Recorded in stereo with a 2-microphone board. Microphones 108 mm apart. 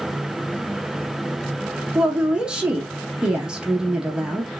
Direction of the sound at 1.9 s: 5° right (ahead or behind).